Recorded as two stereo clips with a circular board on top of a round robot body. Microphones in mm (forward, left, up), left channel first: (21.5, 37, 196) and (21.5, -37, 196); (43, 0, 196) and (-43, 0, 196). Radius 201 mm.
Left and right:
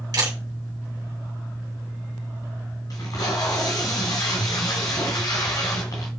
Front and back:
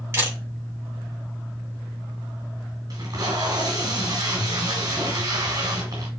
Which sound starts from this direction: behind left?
Tape being pulled, at 2.9 s.